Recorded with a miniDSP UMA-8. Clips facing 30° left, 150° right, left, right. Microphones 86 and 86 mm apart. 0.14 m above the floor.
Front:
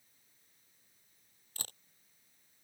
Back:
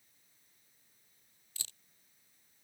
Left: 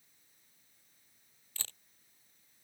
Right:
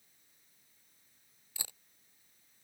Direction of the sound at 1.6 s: 15° right.